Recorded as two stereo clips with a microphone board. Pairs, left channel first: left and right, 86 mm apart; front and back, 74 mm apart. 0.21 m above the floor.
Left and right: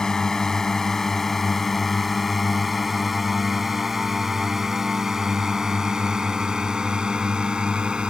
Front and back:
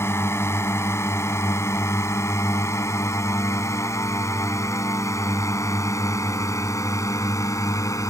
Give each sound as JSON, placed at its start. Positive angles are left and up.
{"t": 0.0, "sound": "a drone", "azimuth_deg": 10}